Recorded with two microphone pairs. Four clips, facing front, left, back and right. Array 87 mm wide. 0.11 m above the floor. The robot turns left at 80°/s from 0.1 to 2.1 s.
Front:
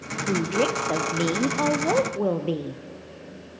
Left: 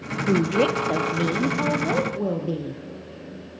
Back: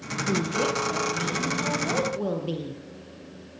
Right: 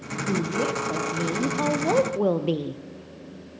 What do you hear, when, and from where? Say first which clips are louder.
0.3 s a woman speaking: left 5 dB, front 3 dB; 85° left, 3 m; by 2.8 s 60° right, 3 m